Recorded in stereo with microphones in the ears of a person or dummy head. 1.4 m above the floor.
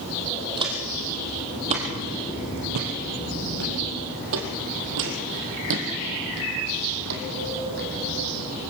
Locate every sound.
0.6 s footsteps: 25° right (ahead or behind), 3.5 m; by 7.9 s 60° right (ahead or behind), 4.5 m